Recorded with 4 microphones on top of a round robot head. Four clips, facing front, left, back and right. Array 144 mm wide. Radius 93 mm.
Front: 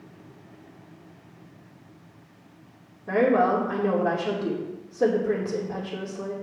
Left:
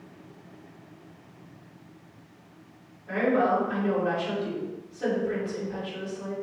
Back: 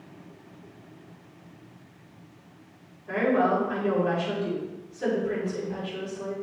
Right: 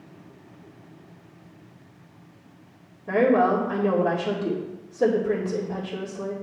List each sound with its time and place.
3.1 s a woman speaking: 35° right, 2.5 m